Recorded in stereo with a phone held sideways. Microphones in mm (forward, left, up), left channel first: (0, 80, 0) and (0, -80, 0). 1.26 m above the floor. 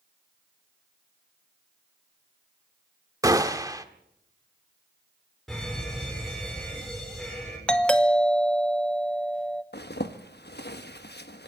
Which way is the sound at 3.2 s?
20° right (ahead or behind).